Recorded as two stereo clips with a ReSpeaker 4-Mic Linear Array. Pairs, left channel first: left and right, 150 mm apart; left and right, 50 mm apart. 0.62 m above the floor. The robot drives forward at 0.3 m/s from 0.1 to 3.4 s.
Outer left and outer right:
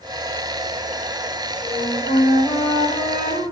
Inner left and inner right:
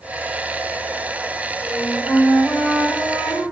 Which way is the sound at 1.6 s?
75° left (ahead or behind).